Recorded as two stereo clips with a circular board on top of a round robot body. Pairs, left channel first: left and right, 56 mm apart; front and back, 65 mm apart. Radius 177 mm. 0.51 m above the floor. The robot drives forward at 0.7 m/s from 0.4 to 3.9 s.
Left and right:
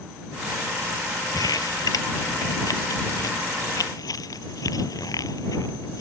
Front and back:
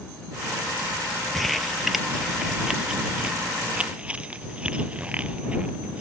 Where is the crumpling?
90° left; by 6.0 s 105° left.